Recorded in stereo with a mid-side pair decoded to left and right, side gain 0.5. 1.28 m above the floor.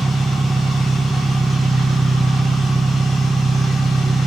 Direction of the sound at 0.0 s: 15° right.